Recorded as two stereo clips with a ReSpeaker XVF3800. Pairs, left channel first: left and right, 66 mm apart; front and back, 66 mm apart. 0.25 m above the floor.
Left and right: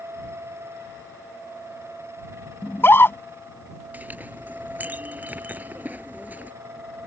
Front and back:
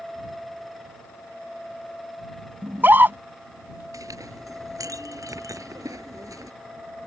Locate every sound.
2.6 s a scream: 130° left
3.9 s a clink: 155° right